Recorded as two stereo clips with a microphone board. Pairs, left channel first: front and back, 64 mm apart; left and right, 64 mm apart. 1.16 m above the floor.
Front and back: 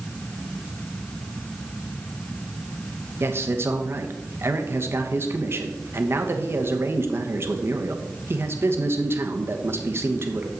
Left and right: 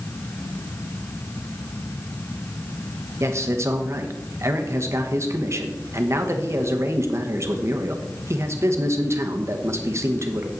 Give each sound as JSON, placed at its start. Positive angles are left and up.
{"t": 3.2, "sound": "a man speaking", "azimuth_deg": -130, "distance_m": 1.1}